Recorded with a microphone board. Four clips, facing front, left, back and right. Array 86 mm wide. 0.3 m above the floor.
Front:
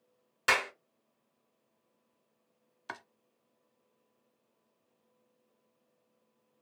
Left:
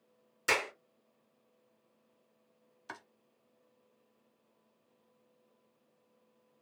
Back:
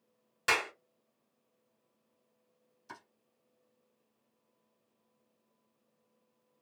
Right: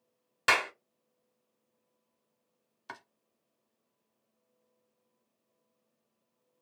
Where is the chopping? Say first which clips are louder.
Right 1 dB, front 6 dB; 5° right, 0.7 m.